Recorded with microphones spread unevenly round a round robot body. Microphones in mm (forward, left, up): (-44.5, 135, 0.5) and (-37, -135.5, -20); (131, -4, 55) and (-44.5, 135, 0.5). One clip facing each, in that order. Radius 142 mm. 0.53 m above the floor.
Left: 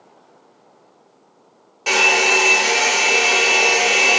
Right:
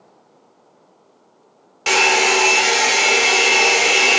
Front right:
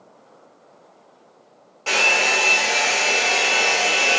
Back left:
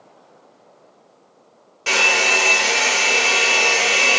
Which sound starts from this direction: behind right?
A hair dryer, at 1.9 s.